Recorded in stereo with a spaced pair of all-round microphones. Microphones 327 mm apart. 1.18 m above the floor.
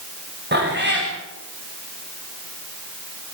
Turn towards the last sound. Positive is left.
turn(degrees=-35)  # may be behind; listen again after turning